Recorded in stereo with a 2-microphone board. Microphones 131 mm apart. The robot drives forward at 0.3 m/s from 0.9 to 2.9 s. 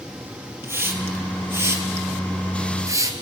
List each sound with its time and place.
0.6 s a hiss: 15° right (ahead or behind), 2.5 m; by 3.1 s 25° right (ahead or behind), 1.8 m